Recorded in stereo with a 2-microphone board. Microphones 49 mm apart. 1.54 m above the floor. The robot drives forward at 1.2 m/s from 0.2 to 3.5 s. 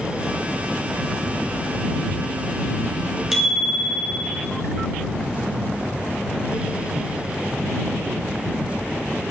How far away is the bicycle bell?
About 6 m.